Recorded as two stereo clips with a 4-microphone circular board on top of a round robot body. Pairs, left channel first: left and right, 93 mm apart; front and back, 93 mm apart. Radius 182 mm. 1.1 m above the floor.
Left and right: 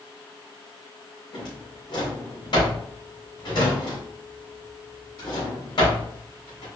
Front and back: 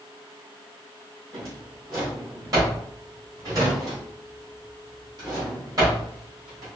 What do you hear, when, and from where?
1.3 s a drawer: 130° left, 2.5 m